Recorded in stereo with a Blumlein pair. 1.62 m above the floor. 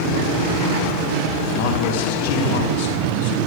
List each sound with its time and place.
1.5 s a man speaking: 50° left, 3 m